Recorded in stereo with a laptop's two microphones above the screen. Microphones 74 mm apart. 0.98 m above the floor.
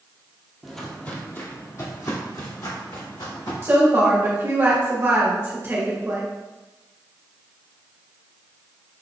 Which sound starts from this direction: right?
A woman speaking, at 3.6 s.